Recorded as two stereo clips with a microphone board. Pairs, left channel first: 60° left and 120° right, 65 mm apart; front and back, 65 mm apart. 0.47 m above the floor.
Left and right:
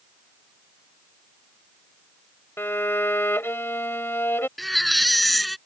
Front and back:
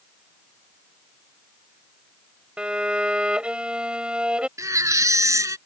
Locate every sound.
2.6 s a violin: 110° left
4.6 s a baby crying: 150° left